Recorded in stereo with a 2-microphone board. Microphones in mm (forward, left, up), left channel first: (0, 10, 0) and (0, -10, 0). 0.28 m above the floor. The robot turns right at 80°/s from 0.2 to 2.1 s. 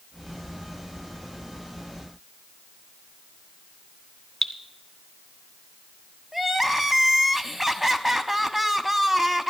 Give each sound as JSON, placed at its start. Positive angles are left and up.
{"t": 4.4, "sound": "dripping", "side_deg": 20, "distance_m": 0.9}
{"t": 6.3, "sound": "crying", "side_deg": -10, "distance_m": 0.6}